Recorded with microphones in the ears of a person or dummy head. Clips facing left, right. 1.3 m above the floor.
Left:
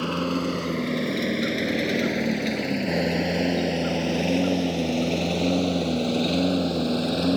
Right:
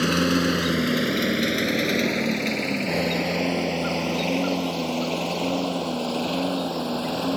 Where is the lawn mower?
20° right (ahead or behind); by 7.4 s 30° left (ahead or behind).